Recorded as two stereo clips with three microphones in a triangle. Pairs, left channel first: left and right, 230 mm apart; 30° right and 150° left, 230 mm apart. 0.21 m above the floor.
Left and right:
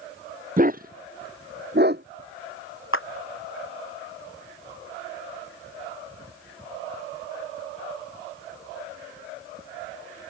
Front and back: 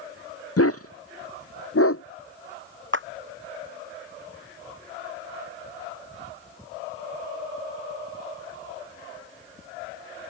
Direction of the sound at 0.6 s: 35° right.